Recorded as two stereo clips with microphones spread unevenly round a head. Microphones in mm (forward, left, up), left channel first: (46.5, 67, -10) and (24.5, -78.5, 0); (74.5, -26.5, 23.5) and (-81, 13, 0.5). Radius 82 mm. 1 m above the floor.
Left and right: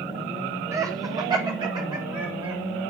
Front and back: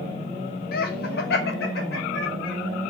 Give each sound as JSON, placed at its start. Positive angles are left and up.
{"t": 0.7, "sound": "laughter", "azimuth_deg": -30, "distance_m": 0.9}